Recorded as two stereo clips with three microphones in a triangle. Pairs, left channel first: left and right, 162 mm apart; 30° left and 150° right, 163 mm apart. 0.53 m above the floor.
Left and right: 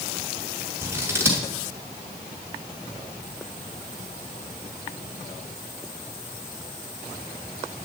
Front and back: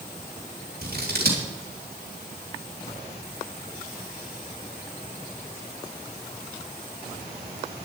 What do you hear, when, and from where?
0.8 s scissors: 165° right, 3 m